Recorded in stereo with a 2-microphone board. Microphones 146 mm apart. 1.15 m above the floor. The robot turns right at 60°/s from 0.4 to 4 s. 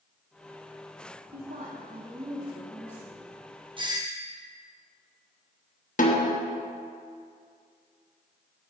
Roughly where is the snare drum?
Left.